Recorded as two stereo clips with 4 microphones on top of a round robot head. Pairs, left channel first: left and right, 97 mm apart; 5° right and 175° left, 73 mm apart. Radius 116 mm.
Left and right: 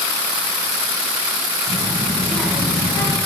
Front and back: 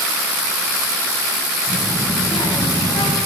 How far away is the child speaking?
About 7.5 m.